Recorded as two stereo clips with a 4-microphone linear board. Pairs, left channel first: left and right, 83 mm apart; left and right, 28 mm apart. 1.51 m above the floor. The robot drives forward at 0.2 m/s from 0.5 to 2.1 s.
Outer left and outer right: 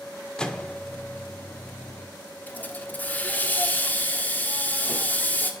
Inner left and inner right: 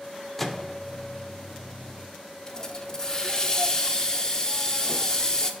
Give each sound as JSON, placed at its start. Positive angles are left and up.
{"t": 0.4, "sound": "a microwave", "side_deg": 10, "distance_m": 0.5}
{"t": 2.5, "sound": "a hiss", "side_deg": 20, "distance_m": 0.6}